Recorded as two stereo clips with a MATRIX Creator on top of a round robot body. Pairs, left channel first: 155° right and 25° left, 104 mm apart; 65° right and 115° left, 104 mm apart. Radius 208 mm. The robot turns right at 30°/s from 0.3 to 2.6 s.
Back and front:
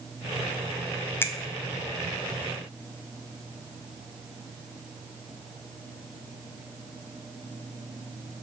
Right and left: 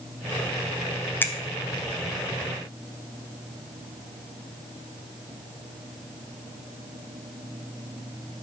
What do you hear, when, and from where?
1.2 s a finger snap: 115° right, 0.6 m